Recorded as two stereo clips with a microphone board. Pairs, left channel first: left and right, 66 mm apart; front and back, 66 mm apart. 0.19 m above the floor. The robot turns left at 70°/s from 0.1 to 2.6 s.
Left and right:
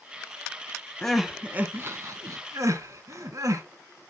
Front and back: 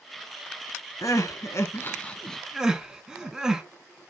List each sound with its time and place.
1.0 s crying: 10° left, 0.7 m; by 3.6 s 100° right, 0.7 m